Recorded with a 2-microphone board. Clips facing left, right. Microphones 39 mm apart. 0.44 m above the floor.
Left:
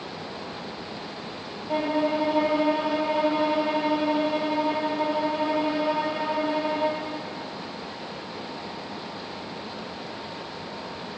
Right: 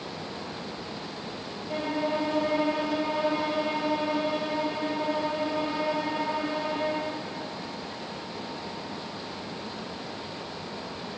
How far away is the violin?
About 1.9 m.